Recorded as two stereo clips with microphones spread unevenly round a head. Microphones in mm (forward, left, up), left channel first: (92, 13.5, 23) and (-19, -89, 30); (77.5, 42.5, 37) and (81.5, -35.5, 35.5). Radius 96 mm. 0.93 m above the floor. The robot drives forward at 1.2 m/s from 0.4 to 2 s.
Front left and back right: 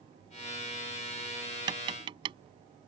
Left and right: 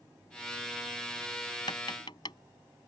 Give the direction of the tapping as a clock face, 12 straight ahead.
7 o'clock.